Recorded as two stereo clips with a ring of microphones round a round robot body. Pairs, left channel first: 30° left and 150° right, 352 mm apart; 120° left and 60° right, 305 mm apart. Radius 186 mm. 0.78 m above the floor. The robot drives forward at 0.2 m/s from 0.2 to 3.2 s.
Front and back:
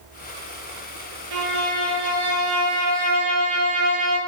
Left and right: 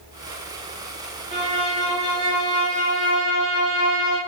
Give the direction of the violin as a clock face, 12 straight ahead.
4 o'clock.